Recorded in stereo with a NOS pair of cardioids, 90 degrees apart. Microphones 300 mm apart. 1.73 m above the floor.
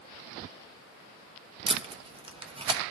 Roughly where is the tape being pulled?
Ahead.